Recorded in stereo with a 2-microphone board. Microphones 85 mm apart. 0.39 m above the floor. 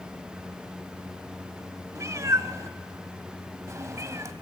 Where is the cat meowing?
40° right (ahead or behind), 1.1 m.